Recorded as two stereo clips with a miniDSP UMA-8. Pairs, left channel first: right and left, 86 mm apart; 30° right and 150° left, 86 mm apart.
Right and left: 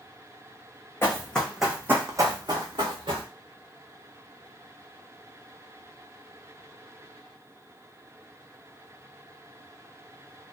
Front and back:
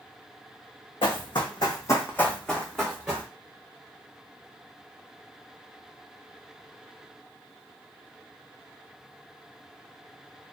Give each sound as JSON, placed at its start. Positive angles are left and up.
{"t": 1.0, "sound": "running footsteps", "azimuth_deg": -25, "distance_m": 0.8}